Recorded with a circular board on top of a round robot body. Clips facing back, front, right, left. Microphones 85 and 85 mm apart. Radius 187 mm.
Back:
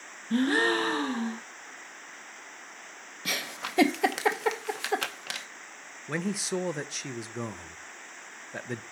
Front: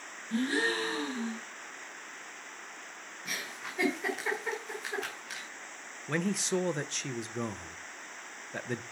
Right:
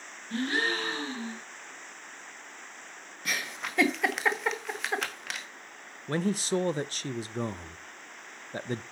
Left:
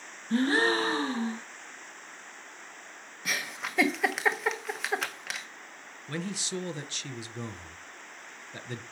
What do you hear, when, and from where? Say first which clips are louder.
0.3 s a gasp: back 5 dB, left 5 dB; 145° left, 0.6 m
3.2 s a giggle: back 5 dB, even; straight behind, 0.8 m
6.1 s a man speaking: even, right 7 dB; 95° right, 0.6 m